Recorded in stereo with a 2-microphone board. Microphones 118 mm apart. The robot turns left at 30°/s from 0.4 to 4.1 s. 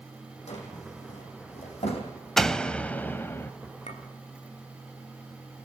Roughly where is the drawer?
Left.